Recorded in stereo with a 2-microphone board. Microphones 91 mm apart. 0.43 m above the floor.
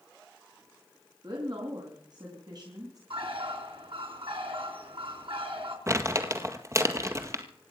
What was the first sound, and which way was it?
A woman speaking, 50° right (ahead or behind).